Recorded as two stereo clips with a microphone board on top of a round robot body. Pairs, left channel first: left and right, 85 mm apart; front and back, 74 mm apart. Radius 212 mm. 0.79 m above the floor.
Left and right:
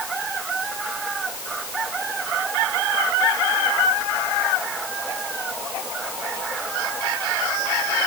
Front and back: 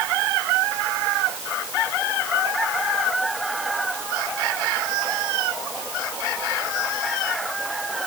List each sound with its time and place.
Only background noise.